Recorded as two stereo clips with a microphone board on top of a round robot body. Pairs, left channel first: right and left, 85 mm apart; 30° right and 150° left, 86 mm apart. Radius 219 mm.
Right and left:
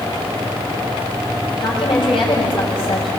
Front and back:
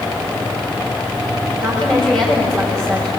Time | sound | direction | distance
1.6 | a woman speaking | 115° right | 6.5 m